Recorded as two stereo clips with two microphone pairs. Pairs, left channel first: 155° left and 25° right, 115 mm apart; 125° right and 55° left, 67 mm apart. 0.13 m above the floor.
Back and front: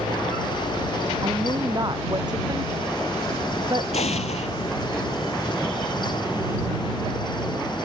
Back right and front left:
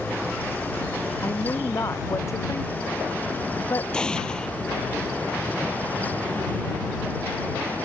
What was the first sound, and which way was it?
A woman speaking, 80° right.